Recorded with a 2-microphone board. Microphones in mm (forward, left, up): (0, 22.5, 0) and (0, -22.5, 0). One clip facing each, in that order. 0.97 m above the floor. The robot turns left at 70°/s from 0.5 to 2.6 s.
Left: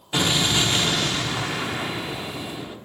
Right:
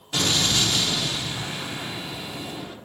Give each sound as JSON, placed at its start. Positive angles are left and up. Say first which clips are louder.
{"t": 0.1, "sound": "an explosion", "louder": "left 2 dB", "azimuth_deg": 160, "distance_m": 0.9}